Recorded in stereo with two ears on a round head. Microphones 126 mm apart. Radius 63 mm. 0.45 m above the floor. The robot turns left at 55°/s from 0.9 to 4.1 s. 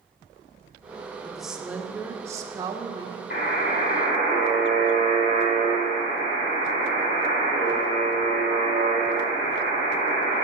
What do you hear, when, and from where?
1.2 s a woman speaking: centre (ahead or behind), 0.8 m; by 3.2 s 25° right (ahead or behind), 0.8 m
3.3 s a buzzer: 85° left, 3 m; by 10.4 s 40° left, 3 m